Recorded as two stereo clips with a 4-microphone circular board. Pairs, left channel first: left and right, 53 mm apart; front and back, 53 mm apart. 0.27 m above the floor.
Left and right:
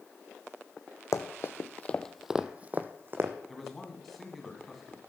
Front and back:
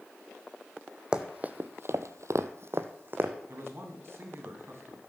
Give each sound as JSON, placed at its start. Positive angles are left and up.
{"t": 1.1, "sound": "running footsteps", "azimuth_deg": 110, "distance_m": 1.0}
{"t": 3.5, "sound": "a man speaking", "azimuth_deg": 175, "distance_m": 2.5}